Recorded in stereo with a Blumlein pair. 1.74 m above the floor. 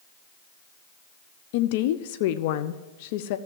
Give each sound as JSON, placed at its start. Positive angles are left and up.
{"t": 1.5, "sound": "a woman speaking", "azimuth_deg": 50, "distance_m": 0.6}